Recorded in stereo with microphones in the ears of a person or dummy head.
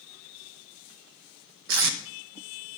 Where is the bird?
No bird in this recording.